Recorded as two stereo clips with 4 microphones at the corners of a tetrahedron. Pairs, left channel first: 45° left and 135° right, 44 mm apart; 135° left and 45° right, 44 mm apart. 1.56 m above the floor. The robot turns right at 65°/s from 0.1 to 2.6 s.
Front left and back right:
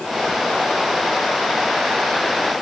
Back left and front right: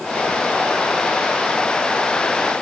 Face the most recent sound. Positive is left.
No sound to turn to.